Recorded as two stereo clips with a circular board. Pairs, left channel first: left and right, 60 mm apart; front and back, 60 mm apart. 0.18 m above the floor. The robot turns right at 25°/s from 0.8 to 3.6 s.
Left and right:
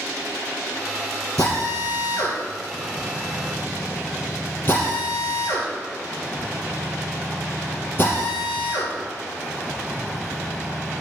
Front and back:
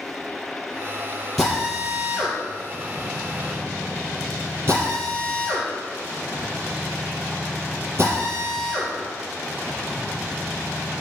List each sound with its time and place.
1.4 s a drill: 85° left, 4 m; by 11.0 s 140° left, 4 m